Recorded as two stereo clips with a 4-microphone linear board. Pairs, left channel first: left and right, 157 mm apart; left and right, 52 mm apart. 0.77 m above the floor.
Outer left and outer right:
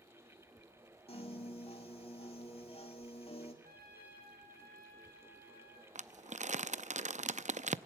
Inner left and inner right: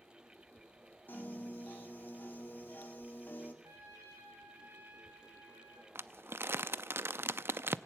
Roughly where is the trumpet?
Right.